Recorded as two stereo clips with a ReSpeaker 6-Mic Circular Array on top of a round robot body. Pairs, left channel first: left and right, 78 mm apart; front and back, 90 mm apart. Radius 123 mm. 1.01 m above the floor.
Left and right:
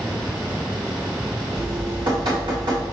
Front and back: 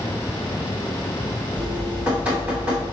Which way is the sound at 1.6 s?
105° right.